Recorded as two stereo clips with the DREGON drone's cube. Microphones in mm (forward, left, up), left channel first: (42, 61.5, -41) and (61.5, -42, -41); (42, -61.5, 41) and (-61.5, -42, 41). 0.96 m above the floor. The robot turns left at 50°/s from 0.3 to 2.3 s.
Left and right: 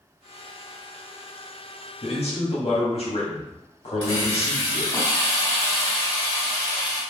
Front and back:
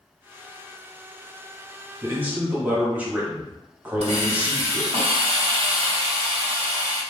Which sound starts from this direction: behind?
A hiss, at 4.0 s.